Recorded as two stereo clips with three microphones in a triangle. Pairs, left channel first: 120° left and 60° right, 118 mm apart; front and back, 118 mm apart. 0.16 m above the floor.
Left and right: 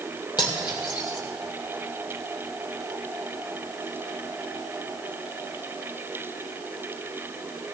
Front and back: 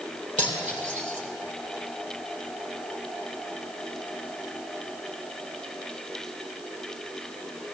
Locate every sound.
0.4 s cutlery clinking: 175° left, 3 m